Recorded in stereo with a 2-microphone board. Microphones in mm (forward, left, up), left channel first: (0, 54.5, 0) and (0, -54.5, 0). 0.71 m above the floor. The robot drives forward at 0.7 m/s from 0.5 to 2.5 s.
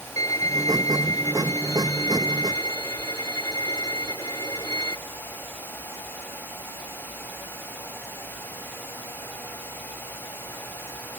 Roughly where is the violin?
Left.